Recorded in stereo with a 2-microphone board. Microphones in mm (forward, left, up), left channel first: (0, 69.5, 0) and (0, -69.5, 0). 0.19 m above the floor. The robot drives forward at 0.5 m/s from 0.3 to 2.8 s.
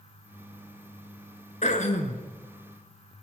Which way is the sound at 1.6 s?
55° left (ahead or behind).